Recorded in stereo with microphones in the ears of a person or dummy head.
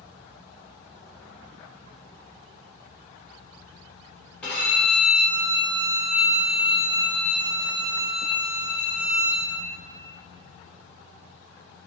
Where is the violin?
5° left (ahead or behind), 1.5 m.